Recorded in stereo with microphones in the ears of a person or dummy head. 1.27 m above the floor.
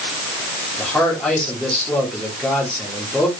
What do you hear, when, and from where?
0.8 s a man speaking: 5° left (ahead or behind), 3 m